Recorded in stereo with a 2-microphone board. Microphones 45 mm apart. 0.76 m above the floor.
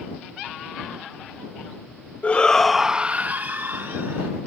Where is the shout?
30° left (ahead or behind); by 4.3 s 65° right (ahead or behind).